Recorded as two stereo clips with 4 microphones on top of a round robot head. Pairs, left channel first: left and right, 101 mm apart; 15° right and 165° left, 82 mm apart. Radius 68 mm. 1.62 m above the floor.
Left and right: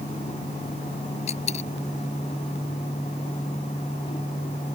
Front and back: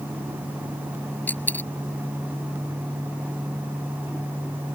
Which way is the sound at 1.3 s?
55° left.